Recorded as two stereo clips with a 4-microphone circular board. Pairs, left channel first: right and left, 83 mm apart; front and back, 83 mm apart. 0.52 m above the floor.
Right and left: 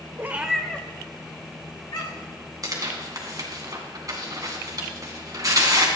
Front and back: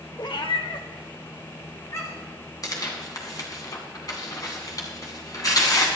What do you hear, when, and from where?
0.2 s a cat meowing: 30° left, 1.0 m; by 2.4 s 55° right, 3 m
2.6 s tearing paper: 45° left, 2.5 m